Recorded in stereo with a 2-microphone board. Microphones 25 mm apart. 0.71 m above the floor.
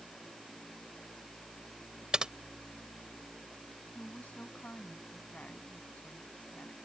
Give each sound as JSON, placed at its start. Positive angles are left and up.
{"t": 2.1, "sound": "typing on a keyboard", "side_deg": -35}
{"t": 4.0, "sound": "a woman speaking", "side_deg": 80}